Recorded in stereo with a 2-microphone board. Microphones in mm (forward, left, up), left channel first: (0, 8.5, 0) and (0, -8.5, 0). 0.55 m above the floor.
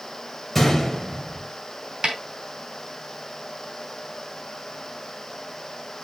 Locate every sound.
0.6 s a gunshot: centre (ahead or behind), 2.5 m
2.0 s a snare drum: 60° right (ahead or behind), 2.5 m